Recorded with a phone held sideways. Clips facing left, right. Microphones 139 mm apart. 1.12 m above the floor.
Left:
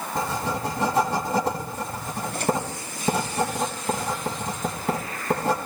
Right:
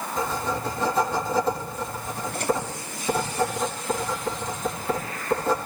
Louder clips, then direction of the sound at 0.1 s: Even; 80° left.